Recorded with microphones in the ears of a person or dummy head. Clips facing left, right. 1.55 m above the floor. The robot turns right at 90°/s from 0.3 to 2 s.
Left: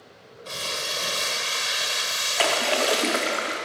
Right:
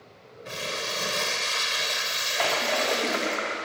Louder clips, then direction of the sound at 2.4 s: Left 3 dB; 45° left (ahead or behind).